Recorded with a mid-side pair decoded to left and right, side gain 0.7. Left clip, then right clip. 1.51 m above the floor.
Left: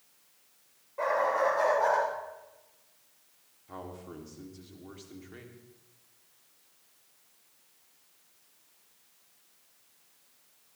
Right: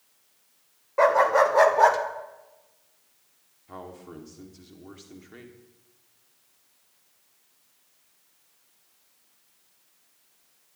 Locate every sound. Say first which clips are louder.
1.0 s a dog barking: right 8 dB; 55° right, 3 m
3.7 s a man speaking: right 2 dB; 10° right, 3.5 m